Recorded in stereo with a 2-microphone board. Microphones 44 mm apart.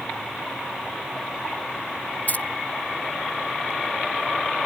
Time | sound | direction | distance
2.3 | keys jangling | 40° left (ahead or behind) | ?